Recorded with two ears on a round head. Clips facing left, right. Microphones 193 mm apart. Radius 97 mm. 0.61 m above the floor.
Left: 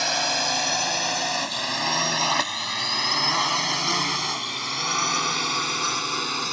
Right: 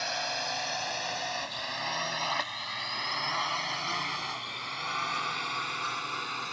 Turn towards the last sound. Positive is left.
turn(degrees=60)  # may be behind; listen again after turning